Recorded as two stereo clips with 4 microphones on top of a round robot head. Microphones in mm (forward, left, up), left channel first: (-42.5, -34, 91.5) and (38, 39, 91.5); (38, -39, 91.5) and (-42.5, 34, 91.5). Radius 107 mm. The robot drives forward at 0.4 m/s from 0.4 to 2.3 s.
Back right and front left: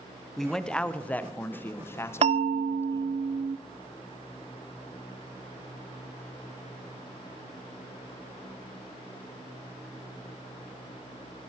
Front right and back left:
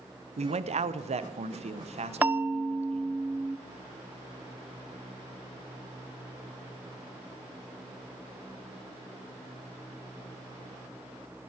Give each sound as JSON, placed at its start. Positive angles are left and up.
{"t": 0.4, "sound": "a man speaking", "azimuth_deg": 135, "distance_m": 0.9}
{"t": 2.2, "sound": "a bell", "azimuth_deg": 65, "distance_m": 0.6}